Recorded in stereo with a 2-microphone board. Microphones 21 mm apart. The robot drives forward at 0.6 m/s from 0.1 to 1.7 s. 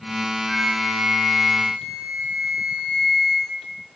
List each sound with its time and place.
0.4 s a flute: 45° left (ahead or behind), 2.5 m; by 3.6 s 35° left (ahead or behind), 3 m